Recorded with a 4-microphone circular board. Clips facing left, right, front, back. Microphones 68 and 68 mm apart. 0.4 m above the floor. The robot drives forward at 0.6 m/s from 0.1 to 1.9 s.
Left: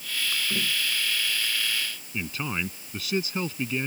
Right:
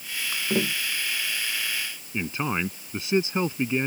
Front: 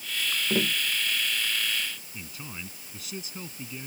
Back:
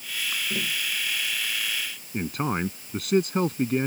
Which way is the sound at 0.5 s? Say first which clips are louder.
Right 9 dB, front 7 dB; 55° right.